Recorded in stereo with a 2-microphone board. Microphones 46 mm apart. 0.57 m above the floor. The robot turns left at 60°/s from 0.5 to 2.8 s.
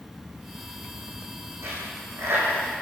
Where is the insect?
Straight behind, 4.5 m; by 2.8 s 45° left, 4.5 m.